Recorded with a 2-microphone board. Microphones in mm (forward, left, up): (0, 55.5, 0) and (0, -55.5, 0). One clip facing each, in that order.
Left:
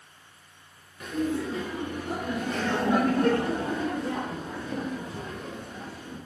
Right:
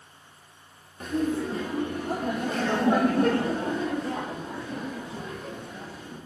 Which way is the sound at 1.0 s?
35° right (ahead or behind).